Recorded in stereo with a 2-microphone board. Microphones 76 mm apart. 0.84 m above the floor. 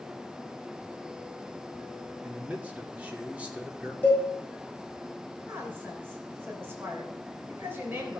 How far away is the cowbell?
About 6 m.